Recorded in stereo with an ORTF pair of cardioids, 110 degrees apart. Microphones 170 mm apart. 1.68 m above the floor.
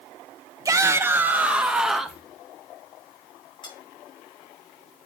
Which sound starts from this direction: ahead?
A shout, at 0.7 s.